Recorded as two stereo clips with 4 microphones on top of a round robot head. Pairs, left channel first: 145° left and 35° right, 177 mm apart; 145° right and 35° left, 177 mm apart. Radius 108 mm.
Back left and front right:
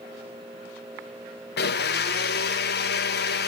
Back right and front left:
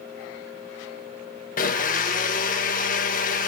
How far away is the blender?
About 1.0 m.